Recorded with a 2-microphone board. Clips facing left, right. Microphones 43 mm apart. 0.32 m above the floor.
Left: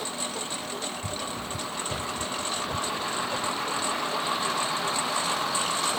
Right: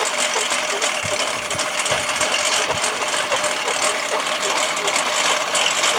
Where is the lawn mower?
80° right; by 6.0 s 70° right (ahead or behind).